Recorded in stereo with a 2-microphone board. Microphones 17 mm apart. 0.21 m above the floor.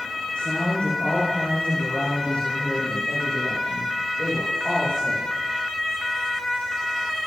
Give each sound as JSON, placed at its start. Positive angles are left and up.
{"t": 0.3, "sound": "a woman speaking", "side_deg": 80, "distance_m": 10.0}